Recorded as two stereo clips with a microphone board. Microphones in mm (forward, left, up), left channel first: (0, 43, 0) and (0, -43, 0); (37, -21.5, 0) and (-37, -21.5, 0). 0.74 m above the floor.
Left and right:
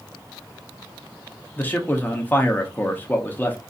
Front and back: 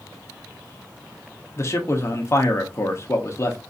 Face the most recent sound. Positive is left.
turn(degrees=30)